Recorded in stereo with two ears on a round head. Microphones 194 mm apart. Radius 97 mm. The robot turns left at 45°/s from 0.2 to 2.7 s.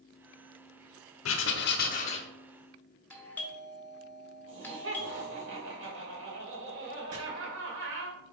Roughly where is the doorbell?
Centre.